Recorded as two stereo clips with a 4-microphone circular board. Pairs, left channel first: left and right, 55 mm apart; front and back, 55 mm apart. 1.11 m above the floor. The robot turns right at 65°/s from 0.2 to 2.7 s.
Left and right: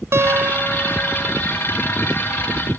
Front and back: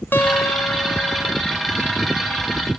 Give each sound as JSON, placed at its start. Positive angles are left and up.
{"t": 0.1, "sound": "a guitar", "azimuth_deg": -50, "distance_m": 0.9}